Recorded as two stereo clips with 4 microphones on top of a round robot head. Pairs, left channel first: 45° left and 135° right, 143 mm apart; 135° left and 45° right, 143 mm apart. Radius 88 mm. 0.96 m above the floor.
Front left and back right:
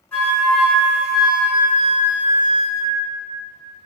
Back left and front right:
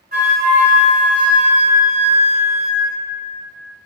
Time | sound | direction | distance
0.1 | a flute | 30° right | 1.2 m